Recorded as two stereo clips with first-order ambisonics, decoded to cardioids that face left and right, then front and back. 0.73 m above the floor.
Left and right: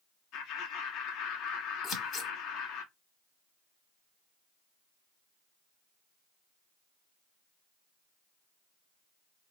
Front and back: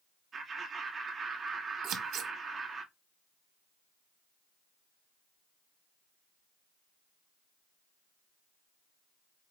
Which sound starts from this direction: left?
Laughter, at 0.3 s.